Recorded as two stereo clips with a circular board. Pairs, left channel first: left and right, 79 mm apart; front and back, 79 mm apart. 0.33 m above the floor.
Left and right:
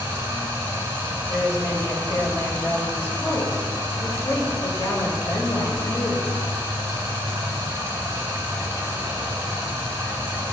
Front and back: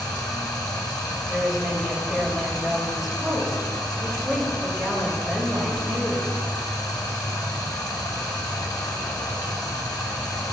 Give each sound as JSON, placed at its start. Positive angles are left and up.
{"t": 0.0, "sound": "running water", "azimuth_deg": -35, "distance_m": 1.7}
{"t": 1.3, "sound": "a woman speaking", "azimuth_deg": 95, "distance_m": 1.2}